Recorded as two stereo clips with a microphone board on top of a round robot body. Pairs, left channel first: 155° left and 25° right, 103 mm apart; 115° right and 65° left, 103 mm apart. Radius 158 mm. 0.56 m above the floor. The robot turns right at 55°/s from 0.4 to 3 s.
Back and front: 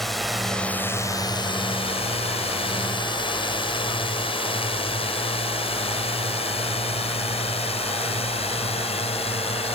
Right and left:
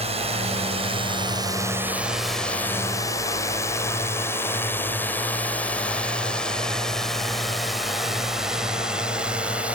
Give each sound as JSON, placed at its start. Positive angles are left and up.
{"t": 0.0, "sound": "a drone", "azimuth_deg": 70}